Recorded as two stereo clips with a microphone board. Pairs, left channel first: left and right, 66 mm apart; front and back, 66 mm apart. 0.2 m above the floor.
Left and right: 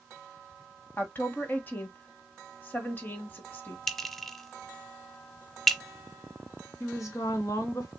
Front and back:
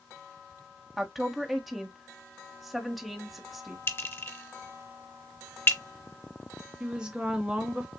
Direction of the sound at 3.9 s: 5° left.